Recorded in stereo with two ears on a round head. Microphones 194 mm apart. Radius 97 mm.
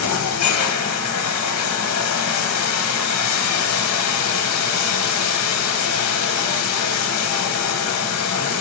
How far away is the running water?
About 0.7 m.